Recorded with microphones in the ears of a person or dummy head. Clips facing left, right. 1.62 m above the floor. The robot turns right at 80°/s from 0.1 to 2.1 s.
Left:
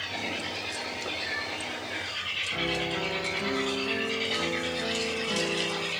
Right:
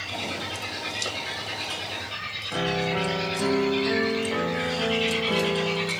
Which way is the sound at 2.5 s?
70° right (ahead or behind).